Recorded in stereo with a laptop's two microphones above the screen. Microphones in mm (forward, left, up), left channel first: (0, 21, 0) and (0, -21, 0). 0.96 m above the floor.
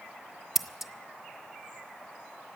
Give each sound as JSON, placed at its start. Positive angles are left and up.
{"t": 0.6, "sound": "scissors", "side_deg": -10, "distance_m": 0.7}